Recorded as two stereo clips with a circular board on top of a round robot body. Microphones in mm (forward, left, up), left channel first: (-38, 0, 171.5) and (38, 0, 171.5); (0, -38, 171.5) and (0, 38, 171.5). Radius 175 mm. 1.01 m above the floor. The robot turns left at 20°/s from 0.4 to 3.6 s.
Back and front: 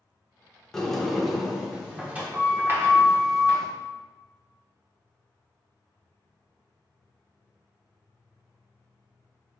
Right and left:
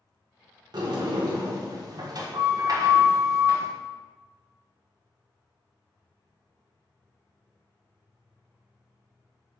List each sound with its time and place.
0.7 s a sliding door: 95° left, 1.5 m; by 3.7 s 40° left, 1.5 m